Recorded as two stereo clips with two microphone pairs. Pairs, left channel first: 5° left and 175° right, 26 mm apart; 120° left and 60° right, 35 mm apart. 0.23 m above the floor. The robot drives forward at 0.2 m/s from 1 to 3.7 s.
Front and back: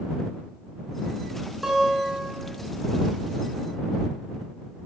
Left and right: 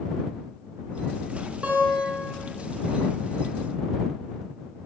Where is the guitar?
105° right, 0.9 m; by 2.3 s 115° right, 0.9 m.